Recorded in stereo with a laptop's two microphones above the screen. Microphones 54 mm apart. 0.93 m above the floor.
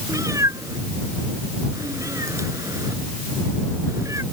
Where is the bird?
No bird in this recording.